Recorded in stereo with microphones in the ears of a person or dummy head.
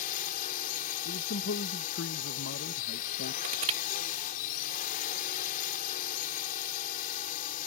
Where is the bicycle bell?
I don't hear a bicycle bell.